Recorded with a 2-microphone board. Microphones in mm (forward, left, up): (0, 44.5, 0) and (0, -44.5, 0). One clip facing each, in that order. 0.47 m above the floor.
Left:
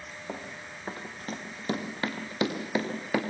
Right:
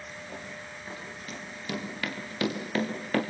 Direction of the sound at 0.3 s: 60° left (ahead or behind).